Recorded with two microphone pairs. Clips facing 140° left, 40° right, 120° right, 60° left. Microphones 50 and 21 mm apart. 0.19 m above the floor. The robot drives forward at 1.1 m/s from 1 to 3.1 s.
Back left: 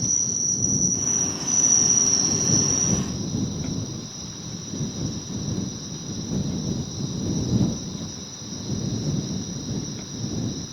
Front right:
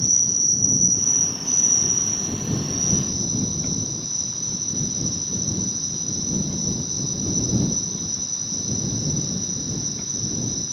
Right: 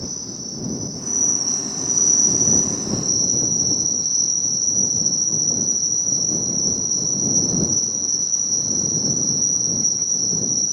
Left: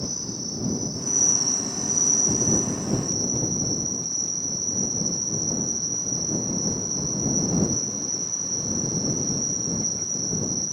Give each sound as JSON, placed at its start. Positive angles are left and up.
{"t": 0.0, "sound": "an insect", "azimuth_deg": -30}